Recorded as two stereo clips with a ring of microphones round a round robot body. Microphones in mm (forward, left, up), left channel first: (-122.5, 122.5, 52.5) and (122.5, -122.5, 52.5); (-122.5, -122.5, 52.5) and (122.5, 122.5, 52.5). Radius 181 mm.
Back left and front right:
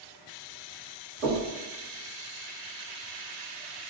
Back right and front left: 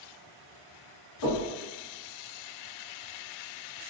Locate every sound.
1.2 s knocking: 120° right, 1.5 m